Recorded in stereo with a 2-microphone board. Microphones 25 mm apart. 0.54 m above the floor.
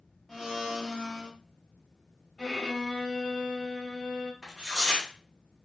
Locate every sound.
0.3 s a blender: 5° right (ahead or behind), 0.8 m
2.4 s a violin: 5° left (ahead or behind), 1.2 m
4.4 s tearing paper: 10° right (ahead or behind), 1.4 m